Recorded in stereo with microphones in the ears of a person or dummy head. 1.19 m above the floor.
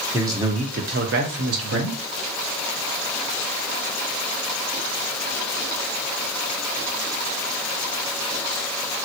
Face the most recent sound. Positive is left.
turn(degrees=-75)  # may be behind; listen again after turning